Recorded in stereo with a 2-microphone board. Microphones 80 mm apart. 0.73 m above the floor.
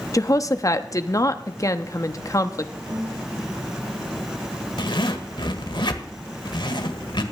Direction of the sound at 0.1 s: 40° left (ahead or behind).